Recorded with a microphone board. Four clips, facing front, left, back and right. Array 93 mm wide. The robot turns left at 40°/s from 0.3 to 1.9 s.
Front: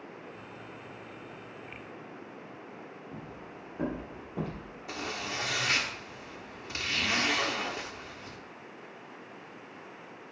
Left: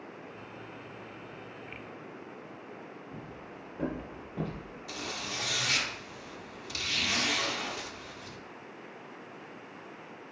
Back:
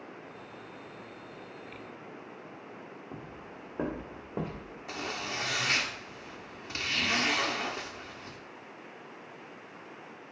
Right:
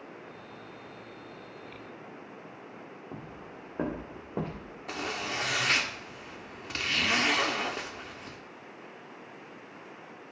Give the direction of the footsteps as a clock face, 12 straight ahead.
4 o'clock.